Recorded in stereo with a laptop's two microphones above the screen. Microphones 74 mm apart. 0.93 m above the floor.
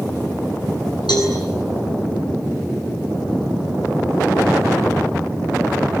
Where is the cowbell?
75° left (ahead or behind), 9 m.